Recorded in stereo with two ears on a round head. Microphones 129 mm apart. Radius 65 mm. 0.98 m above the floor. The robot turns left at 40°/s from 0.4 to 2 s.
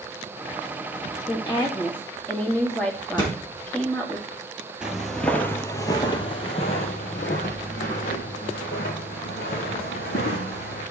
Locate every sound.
1.3 s a woman speaking: 40° left (ahead or behind), 1.9 m; by 4.2 s 10° left (ahead or behind), 1.9 m
3.2 s a thud: 30° left (ahead or behind), 3 m
4.8 s footsteps: 5° right (ahead or behind), 1.0 m; by 10.8 s 75° left (ahead or behind), 3 m